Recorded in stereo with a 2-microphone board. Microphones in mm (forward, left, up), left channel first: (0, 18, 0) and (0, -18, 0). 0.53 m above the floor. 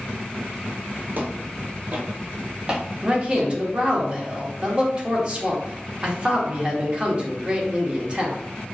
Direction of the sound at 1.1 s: 55° right (ahead or behind).